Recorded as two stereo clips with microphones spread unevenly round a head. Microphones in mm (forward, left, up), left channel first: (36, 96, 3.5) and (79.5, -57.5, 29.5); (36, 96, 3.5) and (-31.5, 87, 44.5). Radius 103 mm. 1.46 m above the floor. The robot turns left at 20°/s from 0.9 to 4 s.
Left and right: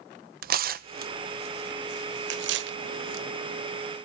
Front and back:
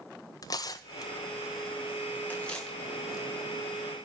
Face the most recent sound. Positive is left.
turn(degrees=-105)